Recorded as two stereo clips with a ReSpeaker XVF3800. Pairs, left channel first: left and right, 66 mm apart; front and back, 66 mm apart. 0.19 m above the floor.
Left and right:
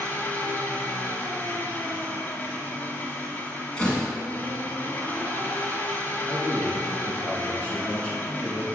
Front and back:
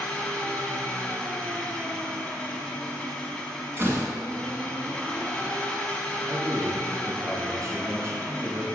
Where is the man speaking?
160° left, 1.8 m.